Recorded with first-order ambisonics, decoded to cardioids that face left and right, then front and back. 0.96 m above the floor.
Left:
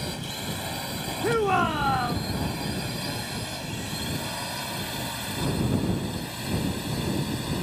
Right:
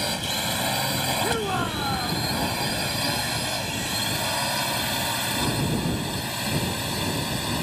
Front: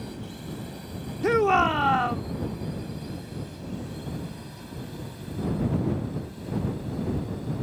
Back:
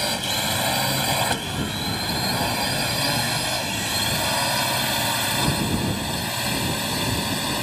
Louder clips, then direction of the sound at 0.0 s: Right 7 dB, back 17 dB; 155° right.